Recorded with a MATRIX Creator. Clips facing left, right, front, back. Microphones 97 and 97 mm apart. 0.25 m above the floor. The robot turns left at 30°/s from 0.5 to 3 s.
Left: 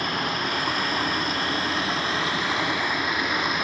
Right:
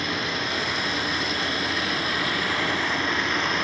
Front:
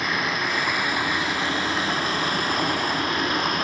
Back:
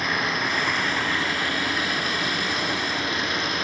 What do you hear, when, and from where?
0.0 s running water: 90° left, 2 m; by 3.6 s 15° left, 2 m